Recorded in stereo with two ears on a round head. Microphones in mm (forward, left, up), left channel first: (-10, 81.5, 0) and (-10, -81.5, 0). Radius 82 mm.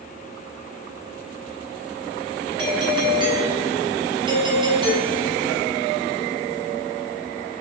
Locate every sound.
2.6 s a doorbell: 25° right (ahead or behind), 5 m